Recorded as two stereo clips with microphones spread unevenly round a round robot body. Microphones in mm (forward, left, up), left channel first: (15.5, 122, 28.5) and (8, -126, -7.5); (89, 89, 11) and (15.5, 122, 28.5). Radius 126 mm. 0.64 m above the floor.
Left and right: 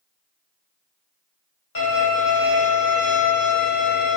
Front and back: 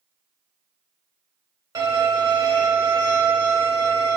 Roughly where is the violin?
Left.